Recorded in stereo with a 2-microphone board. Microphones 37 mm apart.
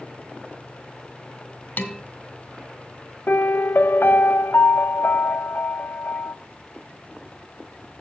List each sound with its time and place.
1.8 s dishes clattering: 60° left (ahead or behind), 1.4 m
3.3 s a piano: 70° left (ahead or behind), 0.6 m